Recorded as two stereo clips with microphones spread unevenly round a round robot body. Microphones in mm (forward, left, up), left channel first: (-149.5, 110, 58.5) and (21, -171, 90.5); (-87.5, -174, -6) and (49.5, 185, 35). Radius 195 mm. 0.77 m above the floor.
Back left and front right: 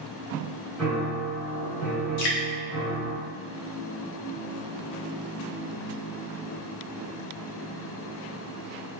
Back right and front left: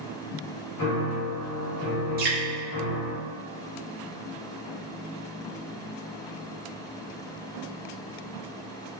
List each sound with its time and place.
0.8 s a piano: 155° right, 1.8 m
2.2 s dripping: 140° left, 0.8 m